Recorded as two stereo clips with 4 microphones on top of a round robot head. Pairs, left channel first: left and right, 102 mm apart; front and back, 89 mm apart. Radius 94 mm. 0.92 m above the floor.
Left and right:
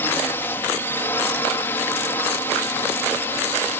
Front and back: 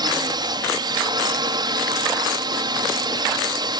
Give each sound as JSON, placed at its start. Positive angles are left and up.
{"t": 0.0, "sound": "a drone", "azimuth_deg": 155}